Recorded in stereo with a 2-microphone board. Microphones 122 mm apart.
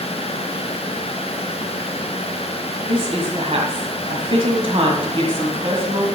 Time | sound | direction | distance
2.9 | a woman speaking | 50° right (ahead or behind) | 1.7 m